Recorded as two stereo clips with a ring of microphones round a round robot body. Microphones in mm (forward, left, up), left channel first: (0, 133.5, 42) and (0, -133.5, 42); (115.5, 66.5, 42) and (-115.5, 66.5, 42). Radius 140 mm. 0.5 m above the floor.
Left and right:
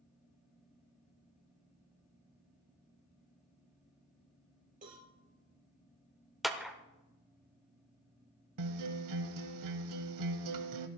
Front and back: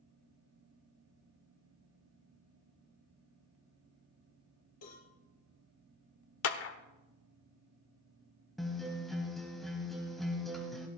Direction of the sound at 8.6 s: 90° right.